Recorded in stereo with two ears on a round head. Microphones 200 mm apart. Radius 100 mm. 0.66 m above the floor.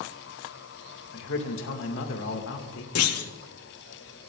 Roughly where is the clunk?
Left.